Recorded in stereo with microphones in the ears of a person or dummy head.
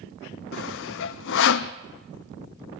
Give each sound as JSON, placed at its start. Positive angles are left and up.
{"t": 0.5, "sound": "sawing", "side_deg": 70, "distance_m": 0.6}